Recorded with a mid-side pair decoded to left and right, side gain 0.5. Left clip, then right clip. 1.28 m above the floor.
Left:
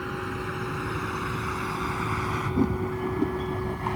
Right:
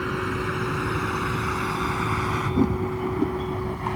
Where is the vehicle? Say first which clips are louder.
Right 5 dB; 35° right; by 4.0 s 5° right.